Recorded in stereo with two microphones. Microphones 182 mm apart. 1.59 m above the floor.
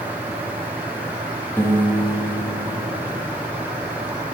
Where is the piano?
15° left (ahead or behind), 0.9 m.